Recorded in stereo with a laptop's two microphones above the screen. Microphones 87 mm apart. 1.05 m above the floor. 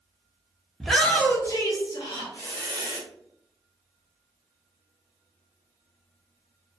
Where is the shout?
Centre (ahead or behind), 0.5 m; by 3.0 s 65° left (ahead or behind), 1.1 m.